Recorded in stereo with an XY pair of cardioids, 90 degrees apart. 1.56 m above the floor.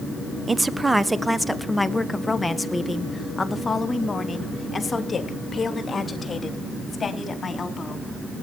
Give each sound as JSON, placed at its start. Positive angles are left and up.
{"t": 0.5, "sound": "a woman speaking", "azimuth_deg": -30, "distance_m": 1.0}